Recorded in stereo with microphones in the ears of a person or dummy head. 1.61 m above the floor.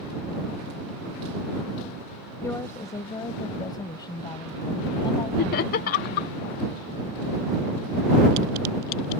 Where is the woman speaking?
20° left (ahead or behind); by 6.4 s 35° left (ahead or behind).